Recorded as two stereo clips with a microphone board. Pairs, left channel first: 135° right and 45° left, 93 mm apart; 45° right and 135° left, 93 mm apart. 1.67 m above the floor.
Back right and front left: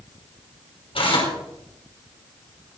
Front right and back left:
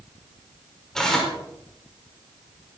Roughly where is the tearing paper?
Behind right.